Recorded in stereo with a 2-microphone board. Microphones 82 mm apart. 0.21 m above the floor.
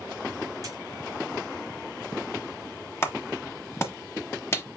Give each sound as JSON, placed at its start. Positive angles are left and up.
{"t": 0.6, "sound": "a dropped coin", "side_deg": -40, "distance_m": 2.5}
{"t": 3.0, "sound": "a clap", "side_deg": 30, "distance_m": 1.0}